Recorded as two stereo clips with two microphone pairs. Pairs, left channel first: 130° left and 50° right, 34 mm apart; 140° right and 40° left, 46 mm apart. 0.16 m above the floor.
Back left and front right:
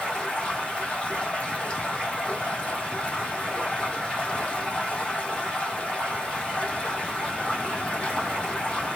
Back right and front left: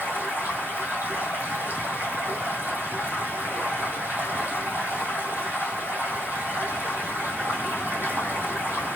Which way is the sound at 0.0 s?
70° left.